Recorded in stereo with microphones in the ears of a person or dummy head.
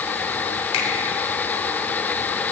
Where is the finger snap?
40° left (ahead or behind), 3.5 m.